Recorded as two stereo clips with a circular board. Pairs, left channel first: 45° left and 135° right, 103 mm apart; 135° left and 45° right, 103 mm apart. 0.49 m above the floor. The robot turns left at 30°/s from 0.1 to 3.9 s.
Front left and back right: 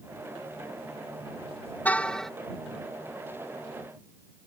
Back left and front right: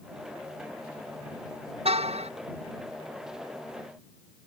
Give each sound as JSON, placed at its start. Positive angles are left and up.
{"t": 1.9, "sound": "a car horn", "azimuth_deg": -30}